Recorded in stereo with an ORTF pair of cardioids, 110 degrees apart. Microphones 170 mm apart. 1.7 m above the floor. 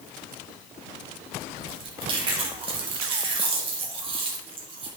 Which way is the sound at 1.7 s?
30° right.